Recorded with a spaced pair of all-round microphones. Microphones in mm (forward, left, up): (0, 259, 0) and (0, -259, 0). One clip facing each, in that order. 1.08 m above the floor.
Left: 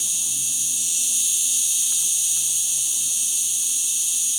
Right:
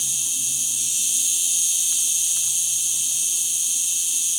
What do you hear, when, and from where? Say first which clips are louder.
0.0 s an insect: right 1 dB; 10° right (ahead or behind), 1.5 m